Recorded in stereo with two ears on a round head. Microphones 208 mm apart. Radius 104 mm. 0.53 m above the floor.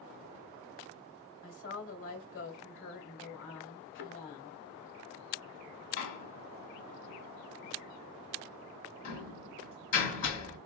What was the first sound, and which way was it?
A woman speaking, 55° left (ahead or behind).